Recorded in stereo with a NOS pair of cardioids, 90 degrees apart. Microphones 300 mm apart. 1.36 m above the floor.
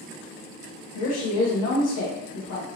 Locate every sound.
0.9 s a woman speaking: 60° left, 0.7 m